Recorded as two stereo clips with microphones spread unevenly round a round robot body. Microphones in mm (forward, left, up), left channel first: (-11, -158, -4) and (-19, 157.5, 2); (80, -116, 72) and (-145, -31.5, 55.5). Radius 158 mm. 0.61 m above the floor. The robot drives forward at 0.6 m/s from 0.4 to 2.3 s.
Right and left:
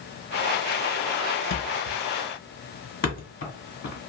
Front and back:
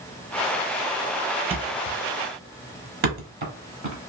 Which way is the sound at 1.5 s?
130° right.